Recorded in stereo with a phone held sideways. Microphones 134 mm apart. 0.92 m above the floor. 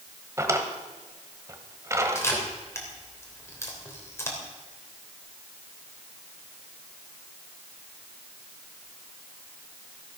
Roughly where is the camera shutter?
Left.